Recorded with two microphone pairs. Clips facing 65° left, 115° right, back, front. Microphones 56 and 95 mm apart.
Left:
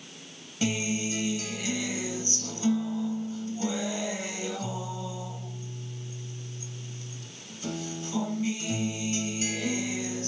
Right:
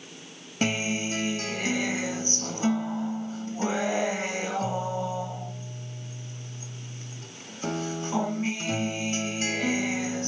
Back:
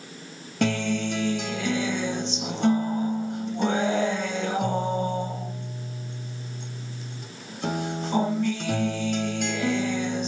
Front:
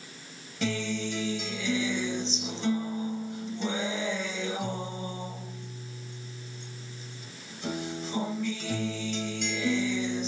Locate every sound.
0.6 s a guitar: 155° right, 1.0 m